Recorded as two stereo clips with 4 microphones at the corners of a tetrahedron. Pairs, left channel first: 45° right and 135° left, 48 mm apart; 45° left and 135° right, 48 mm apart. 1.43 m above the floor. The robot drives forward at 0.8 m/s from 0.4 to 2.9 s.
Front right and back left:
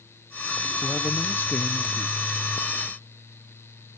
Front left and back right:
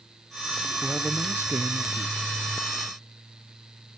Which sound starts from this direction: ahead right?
A man speaking, at 0.8 s.